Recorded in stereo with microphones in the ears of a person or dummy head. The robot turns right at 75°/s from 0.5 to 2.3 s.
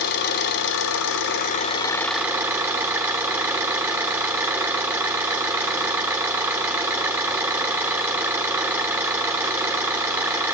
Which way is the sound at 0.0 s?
60° left.